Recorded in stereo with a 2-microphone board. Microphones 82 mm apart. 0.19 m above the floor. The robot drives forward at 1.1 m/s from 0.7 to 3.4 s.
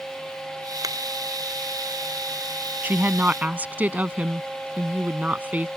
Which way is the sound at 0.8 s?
45° right (ahead or behind).